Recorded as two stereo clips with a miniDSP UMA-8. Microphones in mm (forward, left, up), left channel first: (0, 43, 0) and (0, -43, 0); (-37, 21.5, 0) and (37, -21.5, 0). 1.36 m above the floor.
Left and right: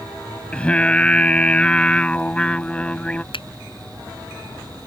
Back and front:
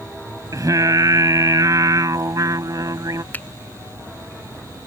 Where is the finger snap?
80° left.